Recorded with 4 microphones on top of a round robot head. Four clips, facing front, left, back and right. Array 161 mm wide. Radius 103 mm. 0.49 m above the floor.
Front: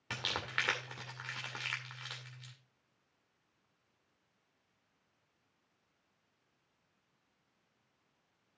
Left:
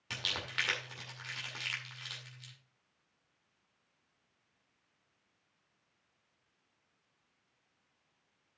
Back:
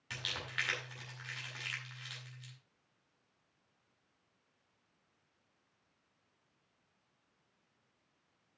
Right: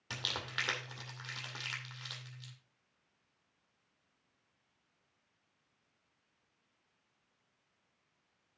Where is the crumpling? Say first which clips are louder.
Even, front 4 dB; 15° right, 2.5 m.